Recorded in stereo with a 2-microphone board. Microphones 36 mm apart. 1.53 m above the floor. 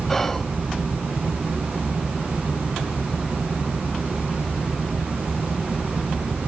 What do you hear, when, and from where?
0.1 s whispering: 10° left (ahead or behind), 0.6 m